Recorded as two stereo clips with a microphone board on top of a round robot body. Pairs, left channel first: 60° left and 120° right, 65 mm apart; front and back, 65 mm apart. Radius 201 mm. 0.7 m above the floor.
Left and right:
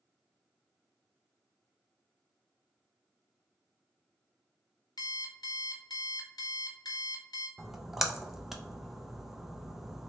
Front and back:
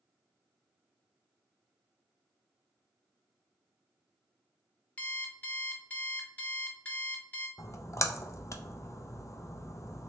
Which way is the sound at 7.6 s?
35° right.